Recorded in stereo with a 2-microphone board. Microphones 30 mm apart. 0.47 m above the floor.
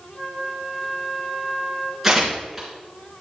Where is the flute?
25° left (ahead or behind), 3.5 m.